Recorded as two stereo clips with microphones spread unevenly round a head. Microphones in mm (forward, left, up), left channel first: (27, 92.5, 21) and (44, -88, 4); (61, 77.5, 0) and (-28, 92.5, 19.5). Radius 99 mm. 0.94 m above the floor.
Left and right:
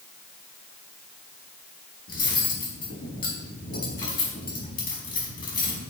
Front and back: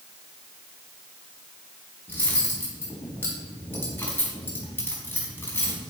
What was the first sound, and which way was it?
Cutlery clinking, 55° left.